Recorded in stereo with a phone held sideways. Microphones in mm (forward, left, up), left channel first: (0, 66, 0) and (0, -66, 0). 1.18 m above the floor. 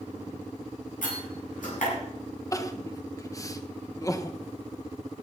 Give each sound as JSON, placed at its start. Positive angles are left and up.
{"t": 1.0, "sound": "a door slam", "side_deg": 90, "distance_m": 9.0}
{"t": 2.5, "sound": "crying", "side_deg": 25, "distance_m": 1.0}